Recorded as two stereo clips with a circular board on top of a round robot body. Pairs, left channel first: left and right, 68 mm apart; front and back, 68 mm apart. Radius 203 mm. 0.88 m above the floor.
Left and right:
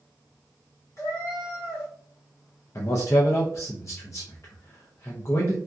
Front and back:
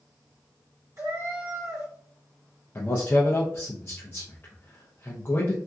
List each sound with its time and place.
1.0 s a cat meowing: 135° left, 1.7 m
2.8 s a man speaking: 55° left, 0.7 m